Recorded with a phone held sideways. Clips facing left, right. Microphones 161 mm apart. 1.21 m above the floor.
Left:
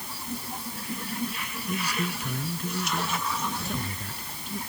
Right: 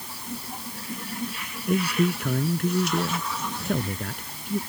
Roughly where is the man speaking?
Right.